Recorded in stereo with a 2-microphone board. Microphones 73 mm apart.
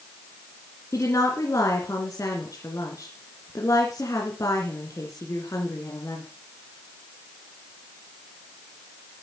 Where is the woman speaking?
50° left (ahead or behind), 2.5 m.